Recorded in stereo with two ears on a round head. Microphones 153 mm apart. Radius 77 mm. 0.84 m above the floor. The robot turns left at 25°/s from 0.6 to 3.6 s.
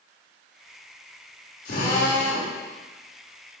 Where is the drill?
55° left (ahead or behind), 3.5 m; by 2.5 s 70° left (ahead or behind), 3.5 m.